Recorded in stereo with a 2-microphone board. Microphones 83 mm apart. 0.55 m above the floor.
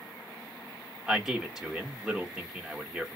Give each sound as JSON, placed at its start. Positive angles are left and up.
{"t": 1.1, "sound": "a man speaking", "side_deg": -10, "distance_m": 1.3}